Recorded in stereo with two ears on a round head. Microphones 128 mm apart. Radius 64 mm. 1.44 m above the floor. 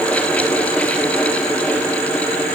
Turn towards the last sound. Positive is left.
No sound to turn to.